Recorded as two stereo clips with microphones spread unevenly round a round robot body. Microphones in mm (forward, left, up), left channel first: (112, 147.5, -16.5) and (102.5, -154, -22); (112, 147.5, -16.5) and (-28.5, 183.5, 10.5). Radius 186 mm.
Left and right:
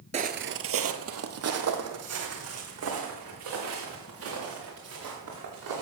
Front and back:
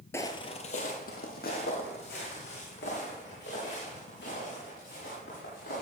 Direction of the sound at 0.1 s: 85° right.